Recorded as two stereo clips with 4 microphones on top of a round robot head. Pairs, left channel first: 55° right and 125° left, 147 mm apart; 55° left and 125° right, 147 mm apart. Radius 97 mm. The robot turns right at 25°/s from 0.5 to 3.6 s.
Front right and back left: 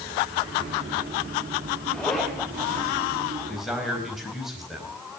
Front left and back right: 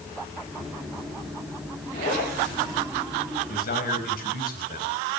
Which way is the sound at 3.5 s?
35° left.